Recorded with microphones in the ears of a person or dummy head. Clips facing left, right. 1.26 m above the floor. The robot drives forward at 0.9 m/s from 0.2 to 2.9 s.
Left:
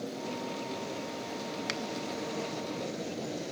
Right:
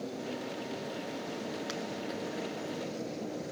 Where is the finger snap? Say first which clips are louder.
Left 1 dB; 30° left (ahead or behind), 0.8 m.